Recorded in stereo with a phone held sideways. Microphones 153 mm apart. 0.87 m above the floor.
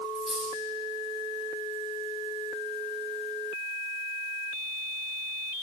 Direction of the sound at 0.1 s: Centre (ahead or behind).